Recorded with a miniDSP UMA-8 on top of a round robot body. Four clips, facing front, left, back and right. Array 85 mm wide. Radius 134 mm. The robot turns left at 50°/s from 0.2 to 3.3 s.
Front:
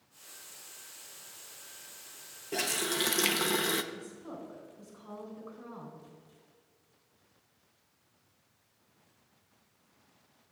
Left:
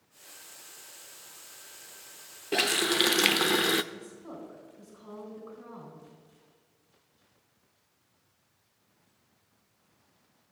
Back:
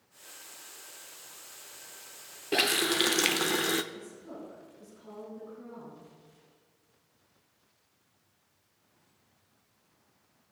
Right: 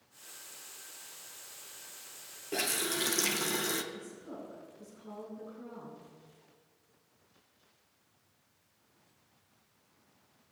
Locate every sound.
2.5 s a running tap: 140° left, 0.7 m; by 3.8 s 100° left, 0.7 m
3.9 s a woman speaking: 65° left, 4 m